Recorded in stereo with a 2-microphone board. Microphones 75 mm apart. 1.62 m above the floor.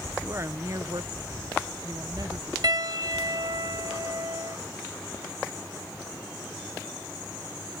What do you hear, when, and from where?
0.2 s a woman speaking: 30° right (ahead or behind); by 2.5 s 55° right (ahead or behind)
2.6 s a piano: 65° right (ahead or behind)